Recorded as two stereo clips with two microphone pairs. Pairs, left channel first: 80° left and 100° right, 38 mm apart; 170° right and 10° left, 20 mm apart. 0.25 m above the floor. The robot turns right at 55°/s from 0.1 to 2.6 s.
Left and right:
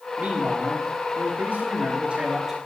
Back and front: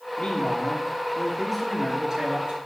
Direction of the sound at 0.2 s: 150° right.